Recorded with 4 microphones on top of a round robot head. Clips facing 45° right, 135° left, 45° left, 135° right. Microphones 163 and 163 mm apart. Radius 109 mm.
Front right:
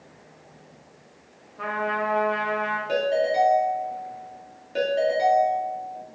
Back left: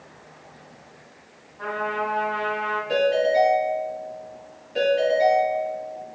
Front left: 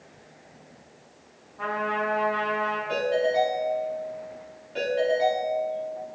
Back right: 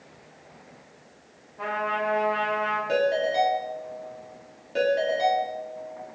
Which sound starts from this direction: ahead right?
A trumpet, at 1.6 s.